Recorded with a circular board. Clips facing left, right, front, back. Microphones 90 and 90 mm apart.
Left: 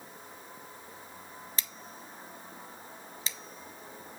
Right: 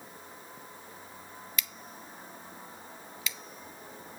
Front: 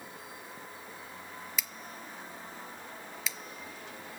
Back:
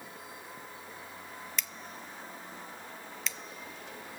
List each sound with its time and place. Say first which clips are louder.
1.6 s scissors: right 1 dB, even; 85° left, 0.7 m